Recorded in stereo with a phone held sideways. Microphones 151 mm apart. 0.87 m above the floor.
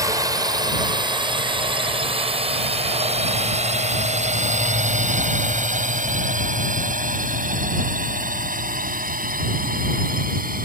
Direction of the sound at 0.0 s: 20° right (ahead or behind).